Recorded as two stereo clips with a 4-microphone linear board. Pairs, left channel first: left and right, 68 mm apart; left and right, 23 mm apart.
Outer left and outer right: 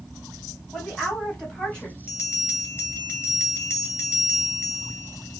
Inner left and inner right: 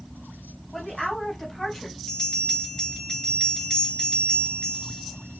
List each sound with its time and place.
0.7 s a woman speaking: 10° left (ahead or behind), 3.5 m; by 2.0 s 15° left (ahead or behind), 2.5 m
2.1 s a bell: 35° left (ahead or behind), 3.5 m